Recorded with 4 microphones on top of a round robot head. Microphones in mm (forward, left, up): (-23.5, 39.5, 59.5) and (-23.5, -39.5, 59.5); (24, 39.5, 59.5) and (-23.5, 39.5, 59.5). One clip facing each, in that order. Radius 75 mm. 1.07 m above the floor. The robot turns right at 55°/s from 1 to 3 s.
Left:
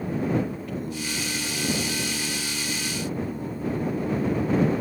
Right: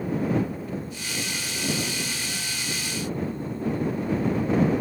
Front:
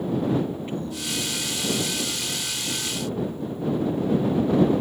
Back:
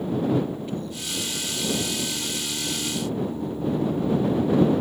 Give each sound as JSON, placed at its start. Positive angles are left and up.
{"t": 0.7, "sound": "singing", "azimuth_deg": 60}